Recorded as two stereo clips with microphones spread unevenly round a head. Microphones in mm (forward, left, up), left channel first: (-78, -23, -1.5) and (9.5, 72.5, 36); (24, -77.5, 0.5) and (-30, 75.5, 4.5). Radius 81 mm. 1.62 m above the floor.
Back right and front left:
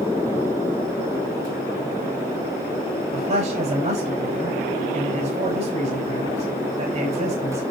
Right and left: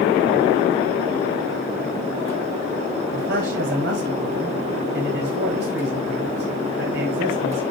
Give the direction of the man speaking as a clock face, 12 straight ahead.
9 o'clock.